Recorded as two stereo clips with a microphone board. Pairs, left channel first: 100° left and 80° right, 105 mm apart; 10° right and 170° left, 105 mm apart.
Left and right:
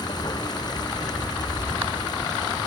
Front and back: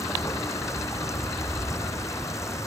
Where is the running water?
50° left.